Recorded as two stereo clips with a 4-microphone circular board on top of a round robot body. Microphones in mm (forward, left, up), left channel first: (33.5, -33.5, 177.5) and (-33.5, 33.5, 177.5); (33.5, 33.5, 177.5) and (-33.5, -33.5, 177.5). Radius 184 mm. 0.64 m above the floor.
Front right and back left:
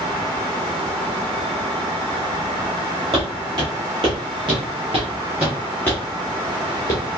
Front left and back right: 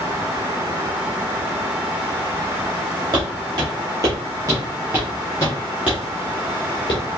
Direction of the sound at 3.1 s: 175° left.